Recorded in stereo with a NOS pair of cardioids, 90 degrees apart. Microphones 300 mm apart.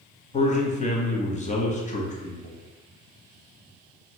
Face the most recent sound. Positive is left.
turn(degrees=25)